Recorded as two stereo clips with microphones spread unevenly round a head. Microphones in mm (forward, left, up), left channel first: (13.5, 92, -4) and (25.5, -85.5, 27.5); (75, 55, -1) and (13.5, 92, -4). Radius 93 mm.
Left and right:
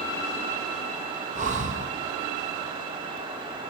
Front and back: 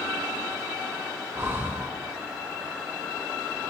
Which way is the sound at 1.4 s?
140° right.